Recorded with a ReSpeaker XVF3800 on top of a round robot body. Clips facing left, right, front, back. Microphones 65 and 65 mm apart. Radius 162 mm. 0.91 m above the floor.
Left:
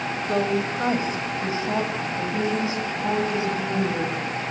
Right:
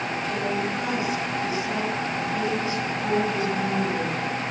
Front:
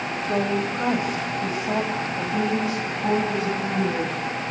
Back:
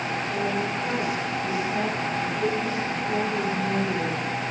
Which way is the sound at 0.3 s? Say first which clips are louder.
Left 5 dB, front 5 dB; 50° left.